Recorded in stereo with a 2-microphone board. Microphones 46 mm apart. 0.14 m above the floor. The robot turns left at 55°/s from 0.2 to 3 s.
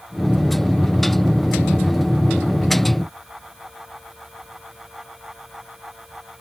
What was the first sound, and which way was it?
Only background noise.